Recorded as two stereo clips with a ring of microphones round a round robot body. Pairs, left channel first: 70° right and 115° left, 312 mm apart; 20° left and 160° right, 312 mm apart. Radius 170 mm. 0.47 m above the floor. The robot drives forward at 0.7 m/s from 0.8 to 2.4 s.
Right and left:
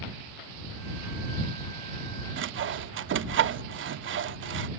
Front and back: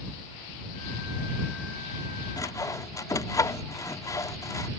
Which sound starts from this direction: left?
Sawing, at 2.4 s.